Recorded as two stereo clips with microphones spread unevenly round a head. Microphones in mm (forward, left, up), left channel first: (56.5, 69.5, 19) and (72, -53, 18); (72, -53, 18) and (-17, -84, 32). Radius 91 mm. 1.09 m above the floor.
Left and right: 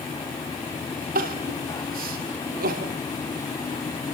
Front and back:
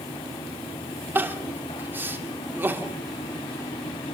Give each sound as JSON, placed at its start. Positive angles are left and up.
{"t": 1.1, "sound": "crying", "azimuth_deg": -95, "distance_m": 2.5}